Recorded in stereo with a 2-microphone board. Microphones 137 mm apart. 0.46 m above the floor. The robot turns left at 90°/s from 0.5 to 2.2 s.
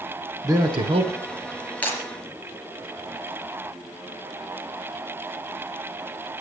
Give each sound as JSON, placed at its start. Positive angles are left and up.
{"t": 0.4, "sound": "a man speaking", "azimuth_deg": -35, "distance_m": 1.0}
{"t": 1.8, "sound": "breaking glass", "side_deg": 10, "distance_m": 4.0}